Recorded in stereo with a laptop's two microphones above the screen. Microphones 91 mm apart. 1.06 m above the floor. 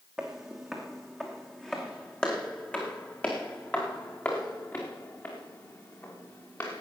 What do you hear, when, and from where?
0.2 s footsteps: 5° right (ahead or behind), 3 m; by 6.8 s 30° left (ahead or behind), 6 m